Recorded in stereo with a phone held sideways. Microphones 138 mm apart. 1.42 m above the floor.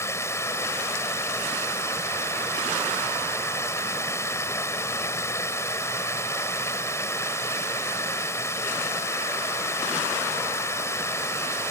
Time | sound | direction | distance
0.0 | running water | 20° left (ahead or behind) | ?